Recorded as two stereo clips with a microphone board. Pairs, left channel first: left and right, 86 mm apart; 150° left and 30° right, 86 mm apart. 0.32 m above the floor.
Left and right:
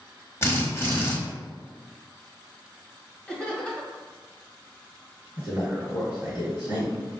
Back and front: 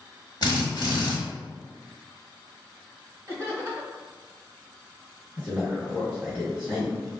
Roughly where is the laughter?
Ahead.